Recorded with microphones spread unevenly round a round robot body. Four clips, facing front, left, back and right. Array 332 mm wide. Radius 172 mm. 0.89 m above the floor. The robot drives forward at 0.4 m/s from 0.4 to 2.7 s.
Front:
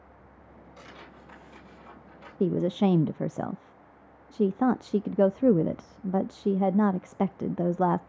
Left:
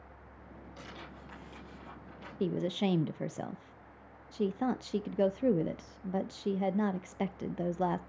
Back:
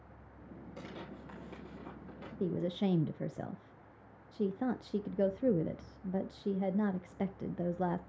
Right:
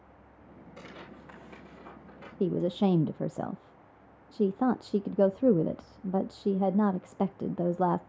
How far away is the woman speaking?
About 0.5 m.